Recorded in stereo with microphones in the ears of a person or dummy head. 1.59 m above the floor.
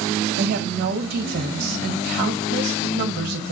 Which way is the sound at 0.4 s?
55° right (ahead or behind).